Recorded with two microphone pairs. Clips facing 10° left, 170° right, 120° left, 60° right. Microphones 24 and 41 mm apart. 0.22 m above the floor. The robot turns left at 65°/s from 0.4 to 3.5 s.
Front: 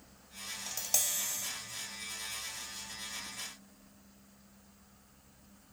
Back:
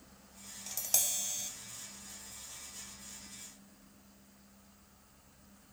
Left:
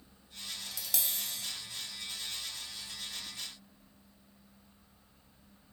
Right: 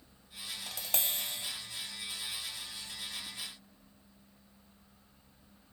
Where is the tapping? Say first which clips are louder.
Even, right 3 dB; 55° right, 0.6 m; by 1.5 s 110° right, 0.6 m.